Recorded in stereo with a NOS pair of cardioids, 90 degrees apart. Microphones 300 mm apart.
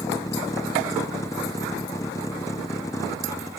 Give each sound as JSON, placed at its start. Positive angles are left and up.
{"t": 0.0, "sound": "a vehicle", "azimuth_deg": 10}